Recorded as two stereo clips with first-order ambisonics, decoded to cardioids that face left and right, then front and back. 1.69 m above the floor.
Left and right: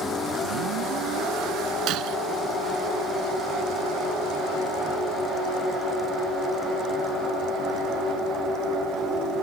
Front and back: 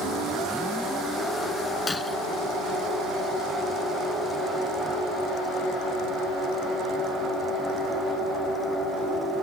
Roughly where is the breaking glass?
Right.